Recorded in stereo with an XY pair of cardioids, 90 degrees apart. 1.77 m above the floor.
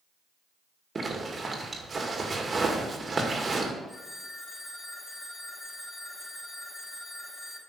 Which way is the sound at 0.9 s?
35° right.